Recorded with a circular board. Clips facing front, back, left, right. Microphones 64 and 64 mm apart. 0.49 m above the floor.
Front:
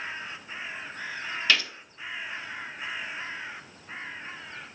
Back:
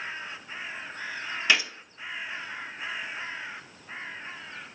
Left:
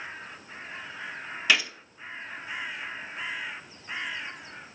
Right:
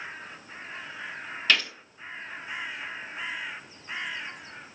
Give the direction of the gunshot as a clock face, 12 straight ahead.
7 o'clock.